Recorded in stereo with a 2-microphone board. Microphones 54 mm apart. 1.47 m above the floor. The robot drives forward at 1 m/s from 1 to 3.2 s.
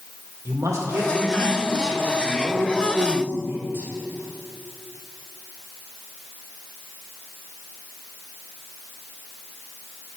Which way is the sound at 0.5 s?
65° right (ahead or behind).